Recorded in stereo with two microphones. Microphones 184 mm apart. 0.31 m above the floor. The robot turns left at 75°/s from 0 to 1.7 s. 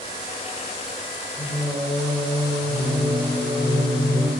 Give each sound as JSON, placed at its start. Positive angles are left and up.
{"t": 1.4, "sound": "singing", "side_deg": 15, "distance_m": 1.2}